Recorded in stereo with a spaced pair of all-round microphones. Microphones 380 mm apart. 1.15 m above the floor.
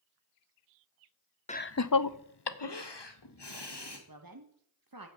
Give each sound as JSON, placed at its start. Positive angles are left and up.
{"t": 1.5, "sound": "laughter", "side_deg": 15, "distance_m": 0.6}
{"t": 4.1, "sound": "a woman speaking", "side_deg": -60, "distance_m": 1.0}